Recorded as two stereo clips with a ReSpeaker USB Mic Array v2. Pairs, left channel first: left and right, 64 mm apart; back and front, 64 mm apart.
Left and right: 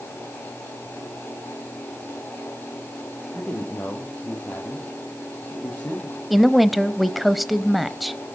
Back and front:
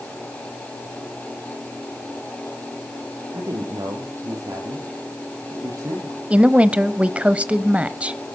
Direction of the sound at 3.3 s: 15° left.